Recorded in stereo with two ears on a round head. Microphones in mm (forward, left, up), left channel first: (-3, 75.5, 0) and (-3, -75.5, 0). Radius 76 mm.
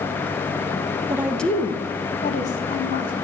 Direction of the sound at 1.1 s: 20° right (ahead or behind).